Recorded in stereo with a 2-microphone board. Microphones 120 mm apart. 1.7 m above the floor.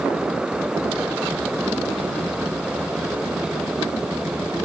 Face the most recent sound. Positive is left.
No sound to turn to.